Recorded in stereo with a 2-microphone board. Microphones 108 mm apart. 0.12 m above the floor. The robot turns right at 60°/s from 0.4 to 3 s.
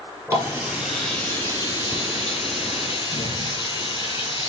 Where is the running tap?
25° right, 1.9 m; by 4.5 s 130° left, 1.9 m.